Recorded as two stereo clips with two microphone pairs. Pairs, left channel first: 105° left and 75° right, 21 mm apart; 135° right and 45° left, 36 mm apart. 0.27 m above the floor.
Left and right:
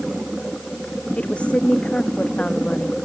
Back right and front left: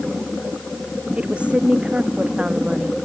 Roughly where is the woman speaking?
Left.